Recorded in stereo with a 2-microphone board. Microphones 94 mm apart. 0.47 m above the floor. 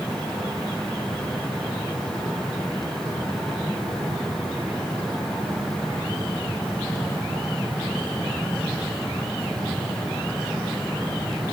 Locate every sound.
Only background noise.